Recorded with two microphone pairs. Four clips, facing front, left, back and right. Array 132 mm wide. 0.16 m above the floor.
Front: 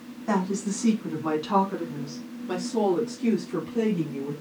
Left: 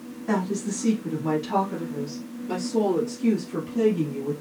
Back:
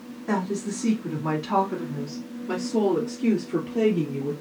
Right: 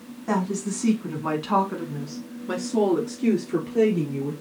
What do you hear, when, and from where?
0.3 s a woman speaking: 45° right, 1.2 m; by 4.3 s 100° right, 2.5 m